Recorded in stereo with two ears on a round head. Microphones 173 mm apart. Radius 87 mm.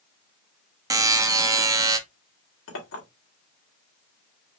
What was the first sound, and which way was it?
A buzzer, 15° right (ahead or behind).